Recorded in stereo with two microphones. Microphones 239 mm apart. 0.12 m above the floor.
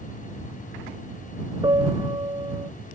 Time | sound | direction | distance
1.6 | a piano | 20° right (ahead or behind) | ?